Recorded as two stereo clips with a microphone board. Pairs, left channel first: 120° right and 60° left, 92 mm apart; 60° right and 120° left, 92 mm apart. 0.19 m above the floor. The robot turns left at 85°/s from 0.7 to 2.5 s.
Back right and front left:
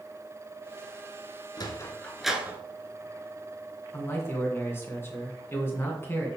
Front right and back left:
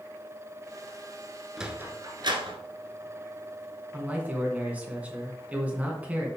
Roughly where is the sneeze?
No sneeze in this recording.